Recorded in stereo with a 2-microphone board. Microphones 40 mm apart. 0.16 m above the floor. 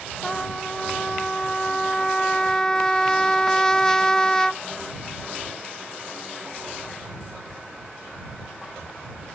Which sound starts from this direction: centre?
A trumpet, at 0.2 s.